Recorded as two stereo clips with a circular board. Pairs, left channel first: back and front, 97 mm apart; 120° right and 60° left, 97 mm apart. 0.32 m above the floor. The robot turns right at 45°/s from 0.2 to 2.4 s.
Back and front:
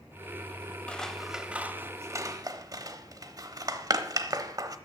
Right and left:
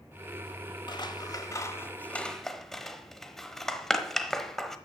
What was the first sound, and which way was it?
Scissors, 105° right.